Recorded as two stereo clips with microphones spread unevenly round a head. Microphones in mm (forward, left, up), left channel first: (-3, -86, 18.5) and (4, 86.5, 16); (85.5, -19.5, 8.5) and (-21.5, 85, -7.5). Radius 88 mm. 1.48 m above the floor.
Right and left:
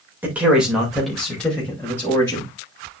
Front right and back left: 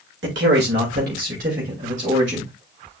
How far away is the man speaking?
About 2 m.